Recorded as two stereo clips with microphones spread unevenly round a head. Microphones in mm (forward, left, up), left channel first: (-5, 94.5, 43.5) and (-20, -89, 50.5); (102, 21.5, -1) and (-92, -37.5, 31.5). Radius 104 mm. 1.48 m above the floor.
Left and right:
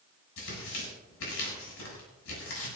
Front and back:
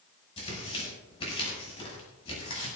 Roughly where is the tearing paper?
Left.